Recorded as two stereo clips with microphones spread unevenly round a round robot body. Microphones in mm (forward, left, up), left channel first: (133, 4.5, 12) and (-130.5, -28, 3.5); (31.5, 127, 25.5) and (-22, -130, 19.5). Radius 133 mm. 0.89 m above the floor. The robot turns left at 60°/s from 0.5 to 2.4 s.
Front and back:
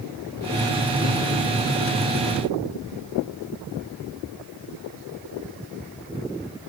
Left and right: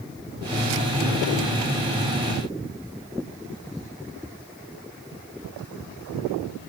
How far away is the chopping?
I don't hear chopping.